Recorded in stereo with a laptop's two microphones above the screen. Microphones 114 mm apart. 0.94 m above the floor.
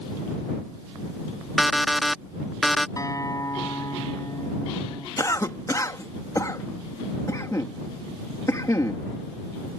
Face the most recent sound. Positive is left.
turn(degrees=30)  # may be behind; listen again after turning